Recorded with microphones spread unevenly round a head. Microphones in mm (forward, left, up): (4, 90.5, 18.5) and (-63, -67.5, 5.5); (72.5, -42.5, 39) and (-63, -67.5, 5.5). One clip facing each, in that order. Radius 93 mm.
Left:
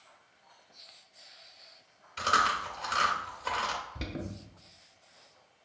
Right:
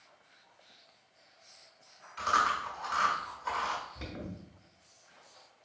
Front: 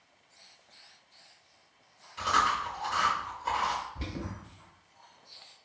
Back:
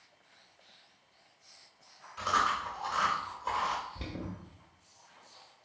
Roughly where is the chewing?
Left.